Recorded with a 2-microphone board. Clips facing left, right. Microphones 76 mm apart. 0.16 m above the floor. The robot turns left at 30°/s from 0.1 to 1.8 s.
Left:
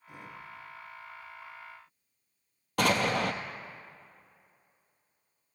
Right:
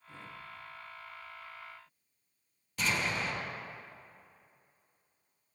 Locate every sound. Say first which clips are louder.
2.8 s an explosion: left 7 dB; 70° left (ahead or behind), 0.7 m